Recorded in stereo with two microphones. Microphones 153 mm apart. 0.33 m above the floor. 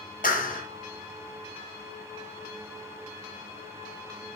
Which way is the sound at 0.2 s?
65° left (ahead or behind).